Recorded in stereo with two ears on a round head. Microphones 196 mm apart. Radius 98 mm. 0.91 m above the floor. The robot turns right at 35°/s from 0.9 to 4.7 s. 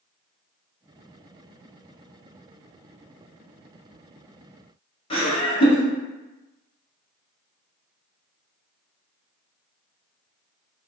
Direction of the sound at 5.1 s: 25° left (ahead or behind).